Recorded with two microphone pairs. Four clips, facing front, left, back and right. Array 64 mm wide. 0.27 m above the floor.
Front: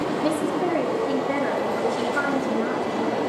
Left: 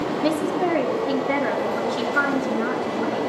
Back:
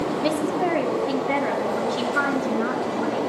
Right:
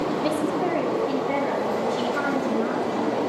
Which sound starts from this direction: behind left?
A woman speaking, at 0.2 s.